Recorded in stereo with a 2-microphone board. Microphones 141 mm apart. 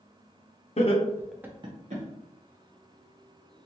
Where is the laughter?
50° left (ahead or behind), 0.7 m; by 2.0 s 60° right (ahead or behind), 0.8 m.